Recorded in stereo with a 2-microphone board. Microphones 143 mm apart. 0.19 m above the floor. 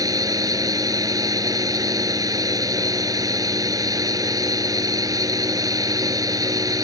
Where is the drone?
25° right (ahead or behind).